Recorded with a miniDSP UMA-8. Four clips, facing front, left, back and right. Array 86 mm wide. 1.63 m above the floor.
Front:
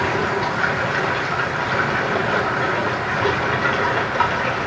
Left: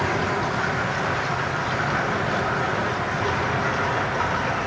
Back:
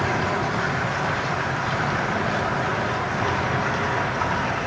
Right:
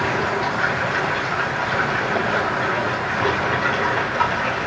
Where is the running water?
25° right, 3.5 m.